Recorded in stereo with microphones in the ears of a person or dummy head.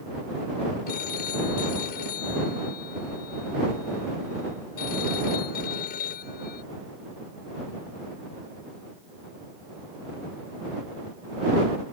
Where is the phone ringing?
55° left (ahead or behind).